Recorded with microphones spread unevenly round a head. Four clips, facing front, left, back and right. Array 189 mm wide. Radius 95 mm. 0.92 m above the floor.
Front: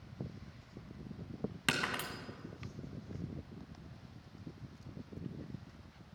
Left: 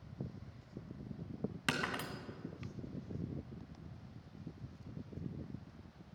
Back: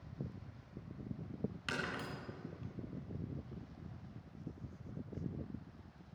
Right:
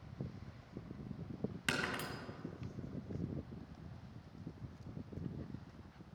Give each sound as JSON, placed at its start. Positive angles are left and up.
{"t": 1.7, "sound": "breaking glass", "azimuth_deg": 40, "distance_m": 2.0}